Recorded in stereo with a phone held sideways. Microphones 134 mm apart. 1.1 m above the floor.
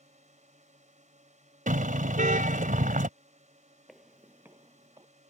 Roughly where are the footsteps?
Centre.